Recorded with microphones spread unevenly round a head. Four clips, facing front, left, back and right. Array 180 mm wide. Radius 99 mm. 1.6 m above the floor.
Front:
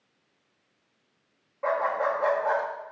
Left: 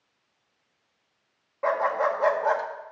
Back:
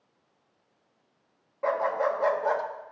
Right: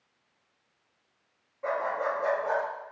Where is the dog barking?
85° left, 1.1 m.